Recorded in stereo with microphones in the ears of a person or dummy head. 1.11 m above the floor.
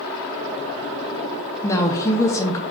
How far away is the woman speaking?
About 0.6 m.